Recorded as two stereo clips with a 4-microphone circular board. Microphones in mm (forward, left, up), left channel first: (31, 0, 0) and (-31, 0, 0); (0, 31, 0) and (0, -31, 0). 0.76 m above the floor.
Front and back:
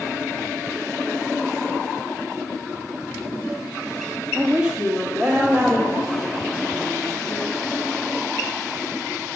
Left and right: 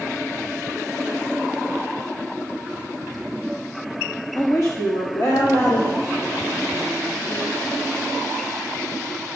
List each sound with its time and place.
4.3 s a woman speaking: 110° left, 1.0 m; by 7.5 s 105° left, 5 m